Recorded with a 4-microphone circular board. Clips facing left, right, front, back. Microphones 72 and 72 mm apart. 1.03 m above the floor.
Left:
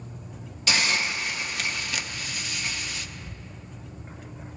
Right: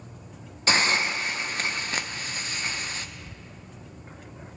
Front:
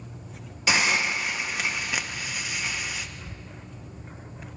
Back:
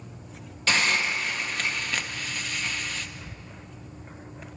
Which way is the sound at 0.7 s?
70° right.